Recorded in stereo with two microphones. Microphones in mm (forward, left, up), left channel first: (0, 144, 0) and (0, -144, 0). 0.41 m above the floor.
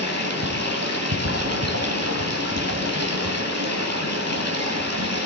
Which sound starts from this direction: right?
Running water, at 0.0 s.